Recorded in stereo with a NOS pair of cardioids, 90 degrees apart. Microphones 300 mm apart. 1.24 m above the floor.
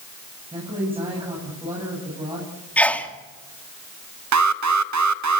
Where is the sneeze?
5° left, 3 m.